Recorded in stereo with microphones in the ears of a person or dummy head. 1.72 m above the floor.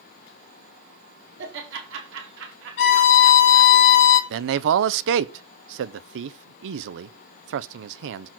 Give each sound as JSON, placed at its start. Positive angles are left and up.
{"t": 1.4, "sound": "laughter", "side_deg": -75, "distance_m": 4.0}
{"t": 2.8, "sound": "a violin", "side_deg": 70, "distance_m": 1.6}
{"t": 4.3, "sound": "a man speaking", "side_deg": -65, "distance_m": 0.7}